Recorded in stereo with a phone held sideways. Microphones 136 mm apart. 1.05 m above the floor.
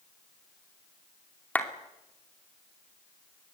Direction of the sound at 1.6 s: 10° left (ahead or behind).